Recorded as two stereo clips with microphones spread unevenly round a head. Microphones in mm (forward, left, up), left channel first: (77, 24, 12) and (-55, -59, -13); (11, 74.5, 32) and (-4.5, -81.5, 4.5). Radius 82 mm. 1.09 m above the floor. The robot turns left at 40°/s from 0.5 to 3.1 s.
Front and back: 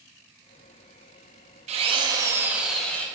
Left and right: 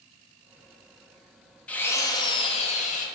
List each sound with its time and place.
1.7 s a drill: 160° left, 0.6 m; by 3.1 s 105° left, 0.6 m